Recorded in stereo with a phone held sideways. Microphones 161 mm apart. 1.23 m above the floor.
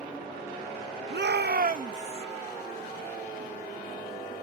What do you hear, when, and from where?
1.1 s a shout: 85° right; by 2.2 s 35° right (ahead or behind)